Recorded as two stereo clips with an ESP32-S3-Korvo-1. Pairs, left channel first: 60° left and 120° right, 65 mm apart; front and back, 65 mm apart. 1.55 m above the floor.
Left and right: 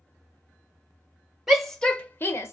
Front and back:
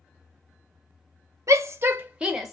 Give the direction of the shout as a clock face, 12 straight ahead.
7 o'clock.